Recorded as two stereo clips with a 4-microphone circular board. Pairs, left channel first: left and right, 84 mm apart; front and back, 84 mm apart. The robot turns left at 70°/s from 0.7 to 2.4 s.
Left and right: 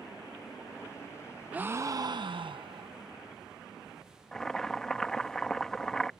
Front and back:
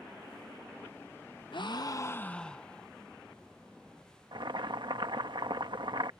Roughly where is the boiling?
Behind.